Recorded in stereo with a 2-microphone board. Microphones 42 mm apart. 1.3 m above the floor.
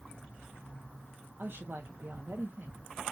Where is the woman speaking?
55° right (ahead or behind), 0.9 m.